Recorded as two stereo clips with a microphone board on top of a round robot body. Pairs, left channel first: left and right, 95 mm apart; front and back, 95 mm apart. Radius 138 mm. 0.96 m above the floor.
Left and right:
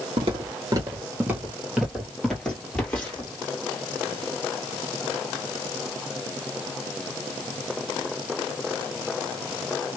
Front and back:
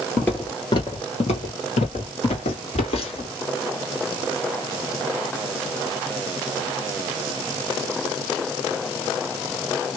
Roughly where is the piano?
No piano in this recording.